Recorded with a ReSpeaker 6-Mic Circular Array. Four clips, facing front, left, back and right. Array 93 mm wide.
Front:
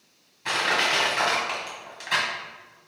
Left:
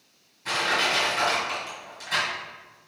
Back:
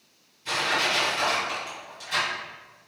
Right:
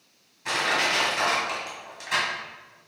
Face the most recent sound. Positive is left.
turn(degrees=-15)